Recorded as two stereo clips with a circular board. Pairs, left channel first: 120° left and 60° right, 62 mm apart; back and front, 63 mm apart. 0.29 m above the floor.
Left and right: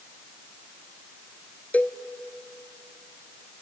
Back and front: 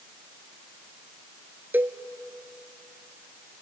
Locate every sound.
1.7 s a cowbell: 60° left, 0.6 m